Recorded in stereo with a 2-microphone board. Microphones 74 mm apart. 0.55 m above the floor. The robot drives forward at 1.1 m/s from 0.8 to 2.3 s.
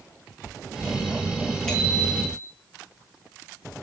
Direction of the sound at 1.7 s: 10° left (ahead or behind).